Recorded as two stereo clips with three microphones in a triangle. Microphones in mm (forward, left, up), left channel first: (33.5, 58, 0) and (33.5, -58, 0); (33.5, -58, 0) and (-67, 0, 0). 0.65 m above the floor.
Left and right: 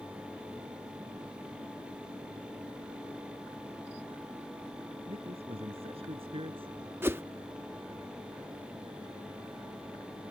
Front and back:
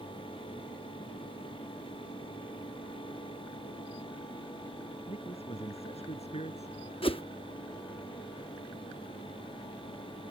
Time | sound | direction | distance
5.1 | a man speaking | 55° right | ?
7.0 | a whoosh | 25° right | ?